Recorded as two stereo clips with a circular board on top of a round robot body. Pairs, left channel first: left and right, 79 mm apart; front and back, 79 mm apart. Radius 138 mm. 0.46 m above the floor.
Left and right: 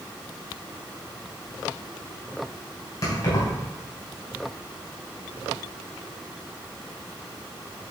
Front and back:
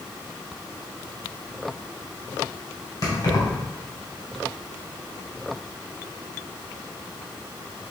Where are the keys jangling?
40° left, 3 m.